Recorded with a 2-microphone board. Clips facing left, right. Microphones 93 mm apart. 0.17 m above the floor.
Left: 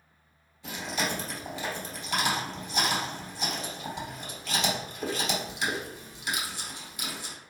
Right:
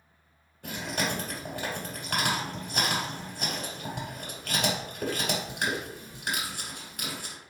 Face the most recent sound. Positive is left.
turn(degrees=-55)  # may be behind; listen again after turning